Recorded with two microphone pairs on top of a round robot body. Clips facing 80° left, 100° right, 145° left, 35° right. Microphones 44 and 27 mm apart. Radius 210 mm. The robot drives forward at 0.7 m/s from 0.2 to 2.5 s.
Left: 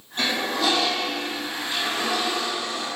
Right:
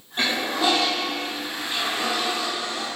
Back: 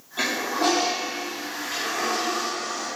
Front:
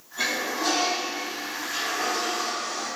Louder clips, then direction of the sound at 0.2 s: Right 1 dB, back 2 dB; 175° right.